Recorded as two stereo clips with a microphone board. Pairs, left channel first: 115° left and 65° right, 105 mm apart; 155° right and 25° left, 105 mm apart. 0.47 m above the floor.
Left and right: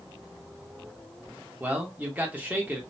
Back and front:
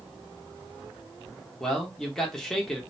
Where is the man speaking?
80° right, 0.7 m.